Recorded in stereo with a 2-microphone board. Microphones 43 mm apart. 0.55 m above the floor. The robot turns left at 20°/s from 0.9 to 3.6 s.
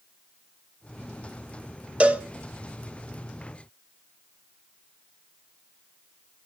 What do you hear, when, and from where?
2.0 s a cowbell: 30° right (ahead or behind), 1.3 m